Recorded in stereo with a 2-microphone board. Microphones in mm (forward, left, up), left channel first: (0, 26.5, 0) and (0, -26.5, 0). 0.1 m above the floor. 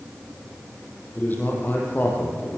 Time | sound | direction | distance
1.2 | a man speaking | 35° left (ahead or behind) | 4.5 m